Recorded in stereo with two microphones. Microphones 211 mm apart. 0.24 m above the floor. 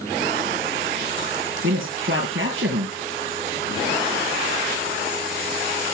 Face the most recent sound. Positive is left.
turn(degrees=-70)  # may be behind; listen again after turning